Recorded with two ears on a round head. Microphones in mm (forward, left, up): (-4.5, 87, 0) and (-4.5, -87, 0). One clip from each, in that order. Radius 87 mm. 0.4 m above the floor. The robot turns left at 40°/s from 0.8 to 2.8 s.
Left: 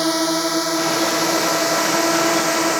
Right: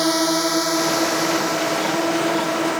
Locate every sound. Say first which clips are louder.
0.0 s a drone: even; centre (ahead or behind); by 2.8 s 80° left